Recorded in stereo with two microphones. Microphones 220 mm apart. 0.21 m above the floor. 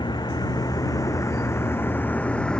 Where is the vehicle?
20° left (ahead or behind); by 2.6 s 5° left (ahead or behind).